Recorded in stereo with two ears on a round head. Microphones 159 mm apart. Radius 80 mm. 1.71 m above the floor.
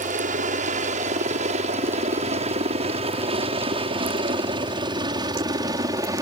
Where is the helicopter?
45° right (ahead or behind); by 6.2 s 20° right (ahead or behind).